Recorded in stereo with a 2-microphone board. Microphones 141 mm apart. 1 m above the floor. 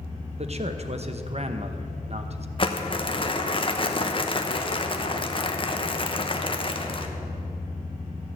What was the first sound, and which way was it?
A man speaking, 45° right (ahead or behind).